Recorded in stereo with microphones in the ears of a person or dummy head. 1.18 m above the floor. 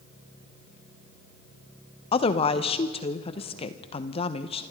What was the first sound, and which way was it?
A woman speaking, 25° left (ahead or behind).